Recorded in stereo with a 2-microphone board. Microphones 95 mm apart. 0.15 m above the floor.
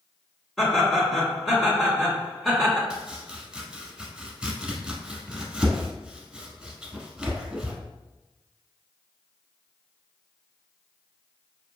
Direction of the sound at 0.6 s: Centre (ahead or behind).